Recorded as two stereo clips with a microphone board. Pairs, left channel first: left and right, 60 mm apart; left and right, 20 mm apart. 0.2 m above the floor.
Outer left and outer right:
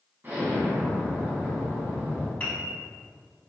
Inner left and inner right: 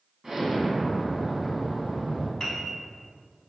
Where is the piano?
25° left (ahead or behind), 0.8 m.